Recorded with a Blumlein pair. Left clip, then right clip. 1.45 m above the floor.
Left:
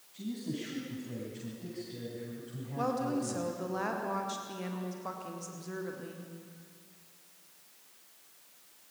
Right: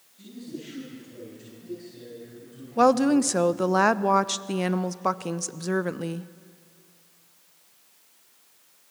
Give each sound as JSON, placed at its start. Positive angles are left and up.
{"t": 0.1, "sound": "a man speaking", "azimuth_deg": 65, "distance_m": 9.5}
{"t": 2.8, "sound": "a woman speaking", "azimuth_deg": -35, "distance_m": 0.8}